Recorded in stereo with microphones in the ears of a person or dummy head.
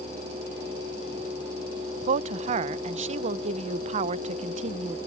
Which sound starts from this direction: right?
A woman speaking, at 2.1 s.